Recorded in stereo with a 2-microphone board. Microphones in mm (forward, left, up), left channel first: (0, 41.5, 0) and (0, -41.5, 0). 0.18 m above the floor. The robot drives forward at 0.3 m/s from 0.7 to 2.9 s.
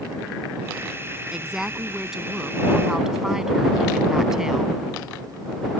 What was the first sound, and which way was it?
A woman speaking, 5° right (ahead or behind).